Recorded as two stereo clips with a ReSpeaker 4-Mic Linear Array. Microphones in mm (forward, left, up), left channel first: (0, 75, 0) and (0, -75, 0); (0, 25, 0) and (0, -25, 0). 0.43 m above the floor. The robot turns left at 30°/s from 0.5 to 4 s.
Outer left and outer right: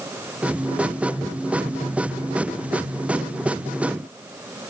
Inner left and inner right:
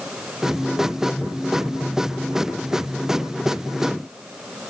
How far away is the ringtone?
No ringtone in this recording.